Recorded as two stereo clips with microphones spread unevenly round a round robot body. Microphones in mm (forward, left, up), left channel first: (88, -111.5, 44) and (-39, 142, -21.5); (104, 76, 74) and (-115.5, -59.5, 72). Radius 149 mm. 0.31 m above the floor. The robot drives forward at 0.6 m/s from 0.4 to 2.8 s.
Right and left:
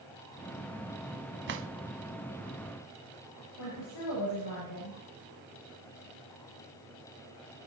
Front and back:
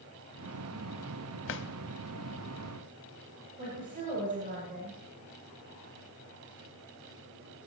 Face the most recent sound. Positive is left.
turn(degrees=-85)